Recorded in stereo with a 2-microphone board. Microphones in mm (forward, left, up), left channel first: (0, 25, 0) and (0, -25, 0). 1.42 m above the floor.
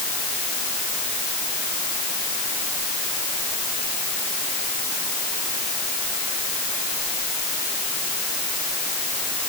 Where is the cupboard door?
No cupboard door in this recording.